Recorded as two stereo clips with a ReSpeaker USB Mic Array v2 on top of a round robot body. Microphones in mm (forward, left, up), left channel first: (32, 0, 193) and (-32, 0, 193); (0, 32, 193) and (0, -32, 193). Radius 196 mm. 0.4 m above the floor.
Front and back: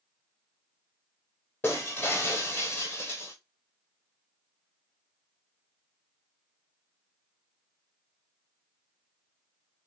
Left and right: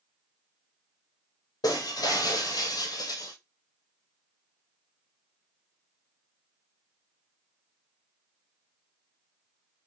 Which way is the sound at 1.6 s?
60° left.